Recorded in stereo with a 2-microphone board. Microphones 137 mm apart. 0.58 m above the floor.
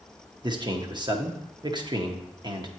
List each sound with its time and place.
0.4 s a man speaking: 30° right (ahead or behind), 0.8 m